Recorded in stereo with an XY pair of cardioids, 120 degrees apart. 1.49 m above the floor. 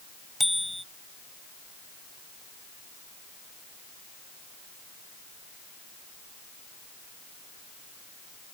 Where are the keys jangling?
I don't hear keys jangling.